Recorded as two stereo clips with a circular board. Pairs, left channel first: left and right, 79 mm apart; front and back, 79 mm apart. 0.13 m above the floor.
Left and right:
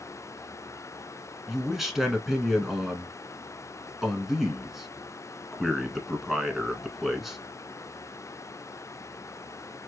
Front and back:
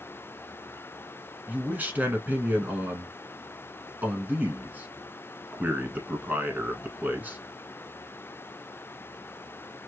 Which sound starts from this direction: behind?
A man speaking, at 1.5 s.